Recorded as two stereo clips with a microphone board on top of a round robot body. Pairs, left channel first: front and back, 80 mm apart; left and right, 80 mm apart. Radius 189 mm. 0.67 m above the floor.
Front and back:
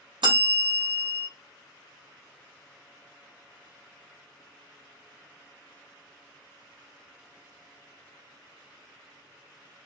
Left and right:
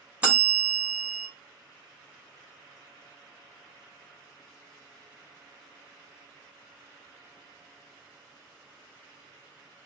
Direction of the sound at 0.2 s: 165° right.